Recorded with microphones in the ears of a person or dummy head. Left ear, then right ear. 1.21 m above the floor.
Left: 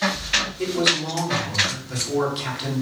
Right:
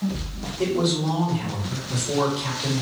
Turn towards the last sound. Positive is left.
turn(degrees=50)  # may be behind; listen again after turning